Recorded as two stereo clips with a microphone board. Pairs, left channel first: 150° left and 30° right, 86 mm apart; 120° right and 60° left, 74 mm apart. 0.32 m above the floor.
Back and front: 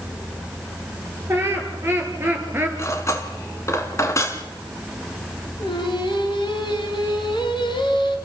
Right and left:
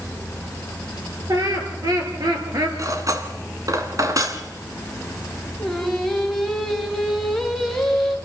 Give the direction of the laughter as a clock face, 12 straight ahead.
11 o'clock.